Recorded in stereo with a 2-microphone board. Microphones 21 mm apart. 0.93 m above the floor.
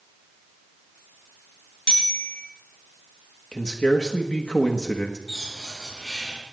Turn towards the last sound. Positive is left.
turn(degrees=10)  # may be behind; listen again after turning